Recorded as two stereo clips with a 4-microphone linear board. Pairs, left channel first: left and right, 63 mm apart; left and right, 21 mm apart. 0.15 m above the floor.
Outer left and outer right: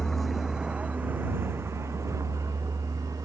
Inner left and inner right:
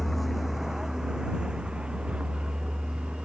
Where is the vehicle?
10° left (ahead or behind); by 3.3 s 60° right (ahead or behind).